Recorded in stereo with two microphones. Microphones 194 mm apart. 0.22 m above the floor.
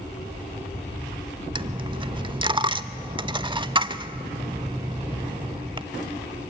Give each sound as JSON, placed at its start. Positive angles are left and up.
{"t": 1.6, "sound": "a dropped coin", "side_deg": -25, "distance_m": 0.5}